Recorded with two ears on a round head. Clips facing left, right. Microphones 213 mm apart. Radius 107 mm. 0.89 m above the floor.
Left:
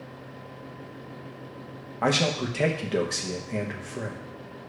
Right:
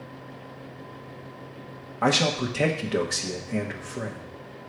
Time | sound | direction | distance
2.0 | a man speaking | 5° right (ahead or behind) | 1.0 m